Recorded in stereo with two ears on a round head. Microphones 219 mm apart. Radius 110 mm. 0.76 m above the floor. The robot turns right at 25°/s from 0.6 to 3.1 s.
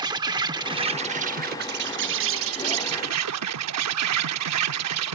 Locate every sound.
0.0 s an insect: 160° right; by 5.1 s 100° right